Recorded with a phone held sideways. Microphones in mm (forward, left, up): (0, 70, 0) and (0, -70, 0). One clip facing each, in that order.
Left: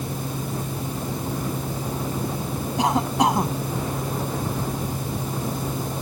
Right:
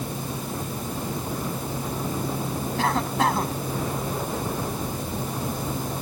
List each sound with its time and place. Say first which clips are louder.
2.8 s a cough: left 3 dB; 20° left (ahead or behind)